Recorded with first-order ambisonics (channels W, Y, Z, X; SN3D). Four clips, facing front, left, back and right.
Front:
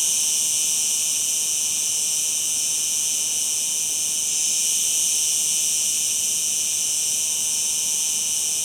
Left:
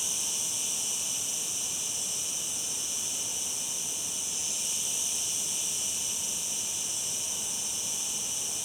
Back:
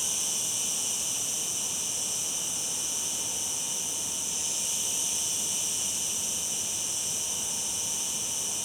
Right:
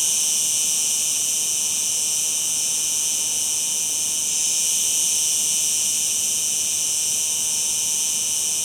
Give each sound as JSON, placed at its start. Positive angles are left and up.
{"t": 0.0, "sound": "an insect", "azimuth_deg": -55, "distance_m": 1.7}